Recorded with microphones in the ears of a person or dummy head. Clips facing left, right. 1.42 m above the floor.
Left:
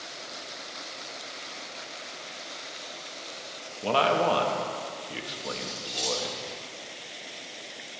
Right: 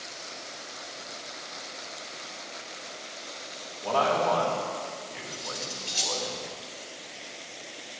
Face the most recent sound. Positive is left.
turn(degrees=-25)  # may be behind; listen again after turning